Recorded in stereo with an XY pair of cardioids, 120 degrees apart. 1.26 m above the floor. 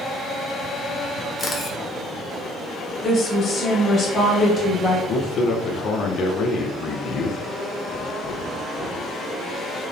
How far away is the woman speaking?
About 1.4 m.